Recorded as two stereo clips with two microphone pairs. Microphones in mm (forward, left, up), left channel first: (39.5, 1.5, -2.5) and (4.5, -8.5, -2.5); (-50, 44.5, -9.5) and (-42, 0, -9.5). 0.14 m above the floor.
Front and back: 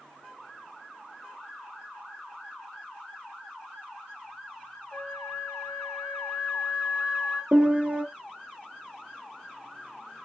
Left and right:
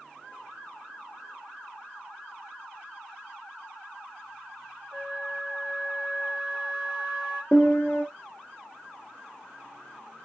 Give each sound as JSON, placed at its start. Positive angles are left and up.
{"t": 4.9, "sound": "a flute", "azimuth_deg": 20, "distance_m": 1.6}
{"t": 7.5, "sound": "a piano", "azimuth_deg": 145, "distance_m": 0.7}